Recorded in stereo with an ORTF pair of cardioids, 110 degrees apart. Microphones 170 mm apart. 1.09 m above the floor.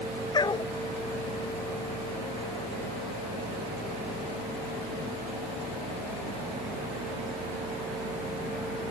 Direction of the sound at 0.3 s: 25° left.